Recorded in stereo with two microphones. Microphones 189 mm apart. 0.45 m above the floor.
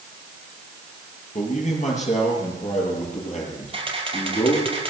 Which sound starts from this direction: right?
A camera shutter, at 3.7 s.